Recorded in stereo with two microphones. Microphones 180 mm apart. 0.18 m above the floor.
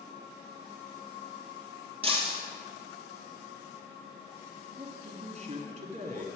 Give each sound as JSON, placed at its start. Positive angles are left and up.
{"t": 2.0, "sound": "breaking glass", "side_deg": -30, "distance_m": 2.5}
{"t": 4.8, "sound": "a man speaking", "side_deg": -40, "distance_m": 1.7}